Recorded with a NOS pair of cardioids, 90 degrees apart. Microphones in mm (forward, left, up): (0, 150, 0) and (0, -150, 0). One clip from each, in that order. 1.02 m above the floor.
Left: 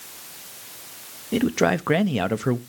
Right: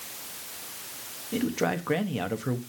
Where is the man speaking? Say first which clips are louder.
Left 7 dB; 40° left, 0.8 m.